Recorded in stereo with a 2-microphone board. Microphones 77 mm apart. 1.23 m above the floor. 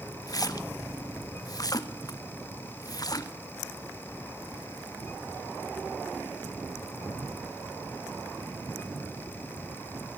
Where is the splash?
50° left (ahead or behind), 1.1 m.